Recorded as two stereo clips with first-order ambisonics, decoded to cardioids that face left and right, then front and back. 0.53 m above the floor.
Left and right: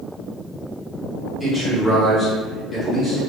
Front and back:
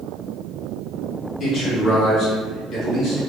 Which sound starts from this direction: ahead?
A man speaking, at 1.4 s.